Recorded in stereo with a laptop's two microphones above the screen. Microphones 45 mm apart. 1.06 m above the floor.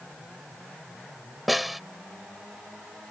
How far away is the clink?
I don't hear a clink.